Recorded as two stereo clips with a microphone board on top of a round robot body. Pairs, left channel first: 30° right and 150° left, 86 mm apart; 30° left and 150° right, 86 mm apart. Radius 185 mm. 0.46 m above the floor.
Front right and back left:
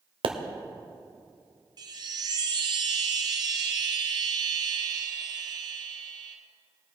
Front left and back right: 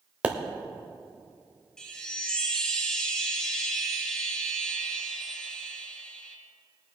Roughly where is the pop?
Behind left.